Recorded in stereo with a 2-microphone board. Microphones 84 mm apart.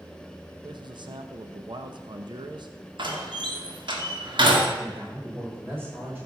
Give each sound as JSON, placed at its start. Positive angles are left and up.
{"t": 0.6, "sound": "a man speaking", "side_deg": -65, "distance_m": 0.9}
{"t": 3.0, "sound": "a door slam", "side_deg": -70, "distance_m": 2.0}
{"t": 4.8, "sound": "a man speaking", "side_deg": -25, "distance_m": 5.0}